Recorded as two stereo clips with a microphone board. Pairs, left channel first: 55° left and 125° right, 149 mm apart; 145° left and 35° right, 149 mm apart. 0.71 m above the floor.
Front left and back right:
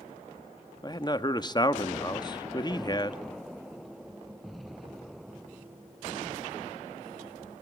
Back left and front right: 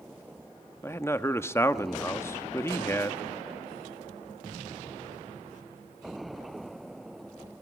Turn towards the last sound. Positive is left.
turn(degrees=85)